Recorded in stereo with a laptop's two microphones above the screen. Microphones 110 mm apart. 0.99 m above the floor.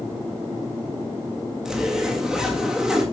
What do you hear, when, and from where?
1.6 s a zipper: 5° right (ahead or behind), 1.7 m